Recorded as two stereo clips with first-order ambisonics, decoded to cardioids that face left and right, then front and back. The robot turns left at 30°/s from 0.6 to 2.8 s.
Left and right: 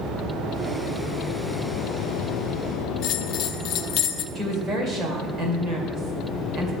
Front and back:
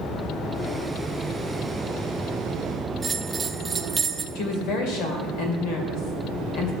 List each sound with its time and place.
3.0 s a bell: 105° left, 0.5 m
4.3 s a woman speaking: 10° right, 2.5 m